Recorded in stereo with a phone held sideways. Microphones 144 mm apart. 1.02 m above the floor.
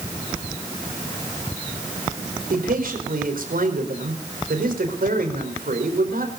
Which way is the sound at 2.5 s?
80° right.